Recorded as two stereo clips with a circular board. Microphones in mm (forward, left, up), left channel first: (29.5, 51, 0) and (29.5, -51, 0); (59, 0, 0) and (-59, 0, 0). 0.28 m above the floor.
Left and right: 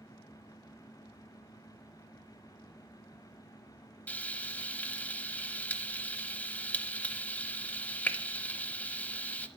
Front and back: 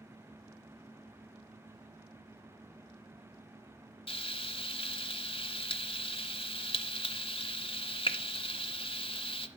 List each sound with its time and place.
4.1 s frying: 15° left, 0.7 m